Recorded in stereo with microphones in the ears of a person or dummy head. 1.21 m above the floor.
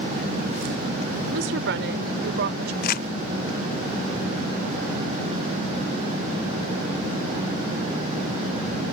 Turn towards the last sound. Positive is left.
turn(degrees=45)  # may be behind; listen again after turning